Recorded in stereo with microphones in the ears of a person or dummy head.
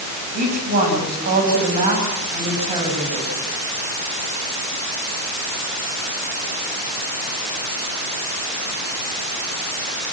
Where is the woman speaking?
50° right (ahead or behind), 8 m; by 3.4 s 25° right (ahead or behind), 8 m.